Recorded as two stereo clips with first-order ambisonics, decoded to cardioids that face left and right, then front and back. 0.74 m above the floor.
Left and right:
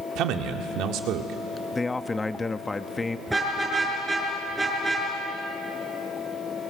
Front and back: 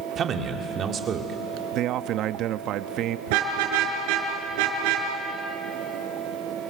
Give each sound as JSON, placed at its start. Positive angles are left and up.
{"t": 0.1, "sound": "a man speaking", "azimuth_deg": -120, "distance_m": 2.0}
{"t": 1.7, "sound": "a man speaking", "azimuth_deg": 165, "distance_m": 0.7}
{"t": 3.3, "sound": "a car horn", "azimuth_deg": -175, "distance_m": 5.5}